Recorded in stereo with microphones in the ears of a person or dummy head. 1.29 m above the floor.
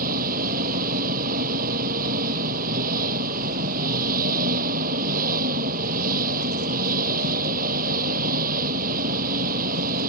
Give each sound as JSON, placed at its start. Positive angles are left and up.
{"t": 0.0, "sound": "an engine running", "side_deg": -45}